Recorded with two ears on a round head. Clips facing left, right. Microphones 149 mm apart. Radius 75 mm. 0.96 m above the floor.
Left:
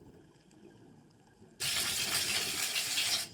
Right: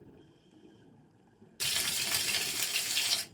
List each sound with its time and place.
1.6 s frying: 85° right, 1.6 m